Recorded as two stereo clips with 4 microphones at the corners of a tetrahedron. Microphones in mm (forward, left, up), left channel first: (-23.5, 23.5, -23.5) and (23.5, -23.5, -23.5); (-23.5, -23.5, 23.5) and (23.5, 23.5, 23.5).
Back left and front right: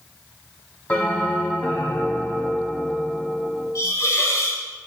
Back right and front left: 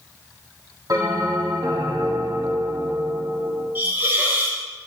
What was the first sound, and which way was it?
A bell, 65° left.